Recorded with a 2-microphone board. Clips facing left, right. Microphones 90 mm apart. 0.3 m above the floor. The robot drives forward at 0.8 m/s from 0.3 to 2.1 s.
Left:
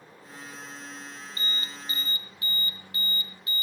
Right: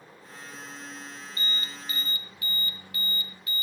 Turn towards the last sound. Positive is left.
turn(degrees=30)  # may be behind; listen again after turning